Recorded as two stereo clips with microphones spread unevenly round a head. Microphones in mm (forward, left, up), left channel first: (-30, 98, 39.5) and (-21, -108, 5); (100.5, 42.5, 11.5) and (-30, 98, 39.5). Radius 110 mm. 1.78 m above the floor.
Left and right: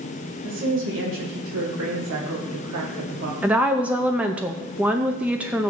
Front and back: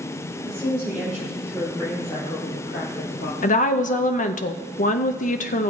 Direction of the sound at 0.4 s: 115° right.